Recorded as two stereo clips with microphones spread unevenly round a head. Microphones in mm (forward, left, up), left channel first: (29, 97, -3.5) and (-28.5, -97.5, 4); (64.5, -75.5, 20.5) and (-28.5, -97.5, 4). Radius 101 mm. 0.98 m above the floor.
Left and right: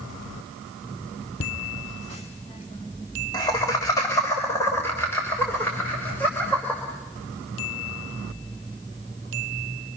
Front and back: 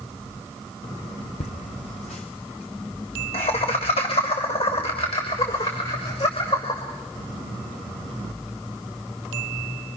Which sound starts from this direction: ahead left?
Laughter, at 1.4 s.